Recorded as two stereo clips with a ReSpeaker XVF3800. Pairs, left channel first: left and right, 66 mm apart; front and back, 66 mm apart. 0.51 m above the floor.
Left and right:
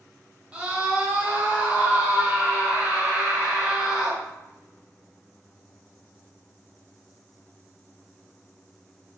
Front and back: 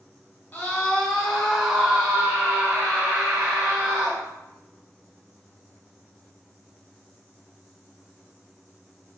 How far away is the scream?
About 1.0 m.